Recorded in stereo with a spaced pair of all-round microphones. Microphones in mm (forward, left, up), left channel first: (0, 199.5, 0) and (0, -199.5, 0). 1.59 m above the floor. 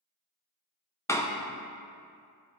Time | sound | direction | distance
1.1 | a door slam | 5° left (ahead or behind) | 0.5 m